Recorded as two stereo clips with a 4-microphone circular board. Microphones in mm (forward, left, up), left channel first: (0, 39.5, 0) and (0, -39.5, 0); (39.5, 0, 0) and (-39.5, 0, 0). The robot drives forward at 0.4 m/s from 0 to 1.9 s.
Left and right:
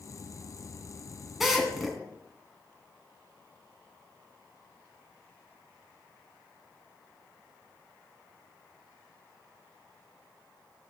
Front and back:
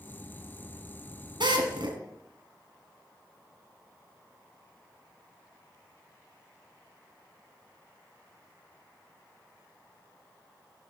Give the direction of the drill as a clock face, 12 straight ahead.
6 o'clock.